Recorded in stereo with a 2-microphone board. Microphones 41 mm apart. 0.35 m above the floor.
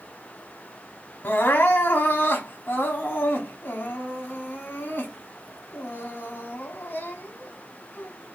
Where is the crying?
55° left (ahead or behind), 1.1 m.